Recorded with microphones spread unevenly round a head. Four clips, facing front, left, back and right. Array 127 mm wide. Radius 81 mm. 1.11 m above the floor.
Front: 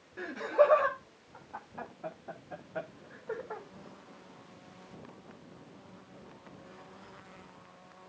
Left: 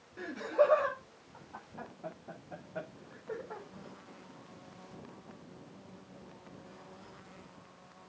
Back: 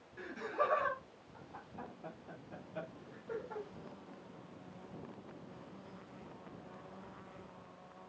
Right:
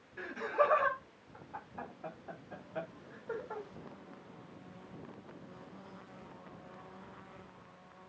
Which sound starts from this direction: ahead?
Laughter, at 0.2 s.